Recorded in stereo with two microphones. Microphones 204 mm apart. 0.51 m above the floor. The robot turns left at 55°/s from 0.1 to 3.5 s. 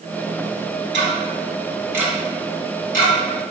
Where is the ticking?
65° right (ahead or behind), 0.9 m; by 3.1 s 50° left (ahead or behind), 0.9 m.